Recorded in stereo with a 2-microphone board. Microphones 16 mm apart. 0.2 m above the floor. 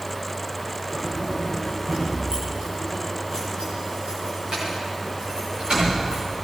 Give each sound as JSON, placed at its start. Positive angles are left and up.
{"t": 0.9, "sound": "keys jangling", "side_deg": -50, "distance_m": 8.0}